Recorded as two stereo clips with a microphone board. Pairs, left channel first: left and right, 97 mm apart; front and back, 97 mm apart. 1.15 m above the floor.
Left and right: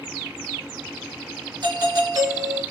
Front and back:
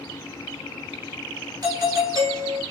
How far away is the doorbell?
About 3 m.